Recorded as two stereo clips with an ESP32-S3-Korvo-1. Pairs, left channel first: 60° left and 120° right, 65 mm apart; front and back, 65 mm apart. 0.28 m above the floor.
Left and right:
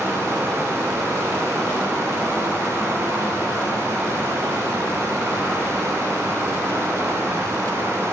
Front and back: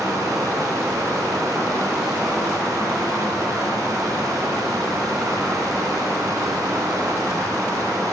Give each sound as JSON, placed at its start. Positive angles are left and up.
{"t": 0.0, "sound": "running water", "azimuth_deg": -165, "distance_m": 0.9}